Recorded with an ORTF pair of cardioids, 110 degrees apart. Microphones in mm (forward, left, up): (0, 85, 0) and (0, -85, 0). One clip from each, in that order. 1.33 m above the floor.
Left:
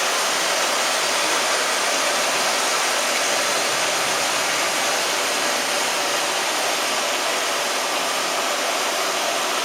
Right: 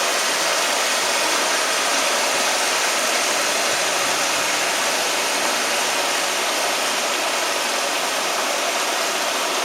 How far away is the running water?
About 1.7 m.